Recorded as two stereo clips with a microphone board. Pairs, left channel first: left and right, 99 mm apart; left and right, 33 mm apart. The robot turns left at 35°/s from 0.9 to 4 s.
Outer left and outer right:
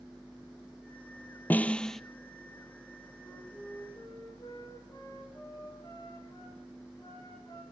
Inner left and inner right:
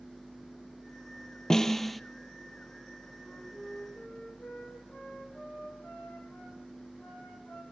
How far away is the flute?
About 5.5 m.